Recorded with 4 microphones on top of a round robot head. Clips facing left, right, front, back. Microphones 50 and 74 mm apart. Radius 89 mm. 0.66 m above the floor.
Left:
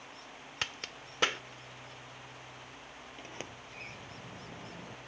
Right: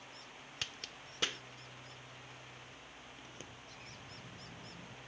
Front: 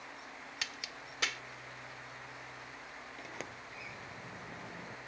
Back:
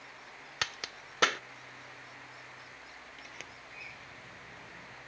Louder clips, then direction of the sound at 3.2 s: Left 7 dB, front 6 dB; 60° left.